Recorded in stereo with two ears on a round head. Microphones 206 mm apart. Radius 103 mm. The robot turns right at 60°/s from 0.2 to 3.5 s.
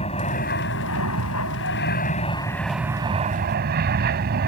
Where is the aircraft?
30° left; by 4.5 s 135° right.